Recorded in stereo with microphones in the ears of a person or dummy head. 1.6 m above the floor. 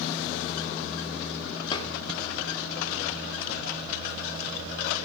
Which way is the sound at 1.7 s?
30° left (ahead or behind).